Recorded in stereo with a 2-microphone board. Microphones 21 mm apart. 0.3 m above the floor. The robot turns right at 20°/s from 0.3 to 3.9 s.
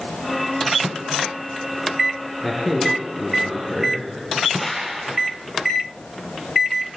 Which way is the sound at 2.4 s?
5° right (ahead or behind).